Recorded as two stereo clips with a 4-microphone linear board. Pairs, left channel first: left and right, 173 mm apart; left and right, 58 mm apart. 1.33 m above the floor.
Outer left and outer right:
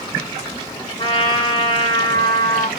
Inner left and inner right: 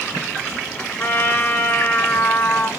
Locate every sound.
1.0 s a trumpet: 30° left (ahead or behind), 1.1 m